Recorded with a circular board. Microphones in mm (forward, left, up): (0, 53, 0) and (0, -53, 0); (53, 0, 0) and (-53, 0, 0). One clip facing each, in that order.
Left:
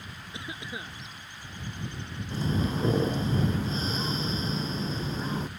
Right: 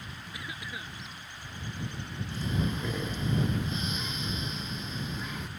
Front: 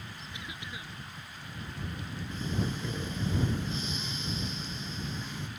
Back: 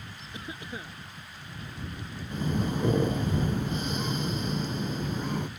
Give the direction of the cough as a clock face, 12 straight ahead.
7 o'clock.